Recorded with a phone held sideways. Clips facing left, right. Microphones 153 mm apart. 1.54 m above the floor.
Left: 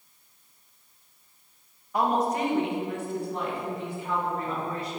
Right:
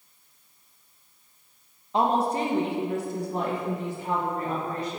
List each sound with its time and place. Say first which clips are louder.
1.9 s a woman speaking: right 1 dB; 25° right (ahead or behind), 1.1 m; by 5.0 s 45° right (ahead or behind), 3 m